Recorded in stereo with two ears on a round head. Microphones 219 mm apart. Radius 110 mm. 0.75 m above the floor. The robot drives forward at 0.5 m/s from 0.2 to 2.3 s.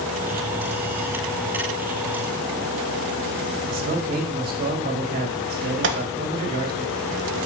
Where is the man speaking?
40° right (ahead or behind), 1.5 m.